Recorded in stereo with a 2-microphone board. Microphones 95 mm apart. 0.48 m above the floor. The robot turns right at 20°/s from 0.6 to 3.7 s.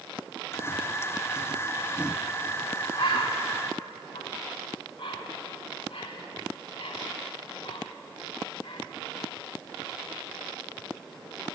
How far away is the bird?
About 0.8 m.